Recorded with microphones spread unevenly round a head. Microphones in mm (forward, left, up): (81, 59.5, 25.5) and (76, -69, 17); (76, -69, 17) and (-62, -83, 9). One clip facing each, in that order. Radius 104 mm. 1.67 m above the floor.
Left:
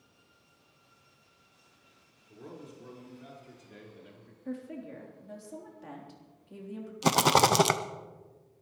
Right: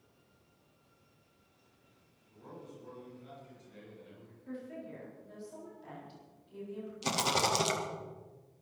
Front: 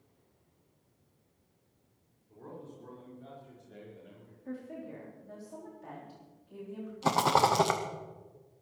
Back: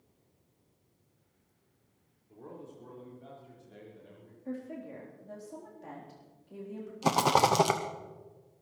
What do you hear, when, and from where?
2.3 s a man speaking: 110° left, 5 m; by 4.3 s 85° left, 4 m
4.5 s a woman speaking: 115° left, 3.5 m
7.0 s a rattle: 105° left, 0.5 m